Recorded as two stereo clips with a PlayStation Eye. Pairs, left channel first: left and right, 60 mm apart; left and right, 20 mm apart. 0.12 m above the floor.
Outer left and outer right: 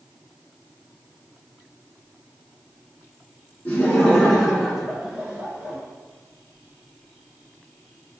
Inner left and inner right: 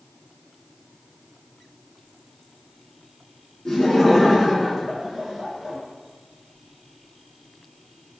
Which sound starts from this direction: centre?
Laughter, at 3.6 s.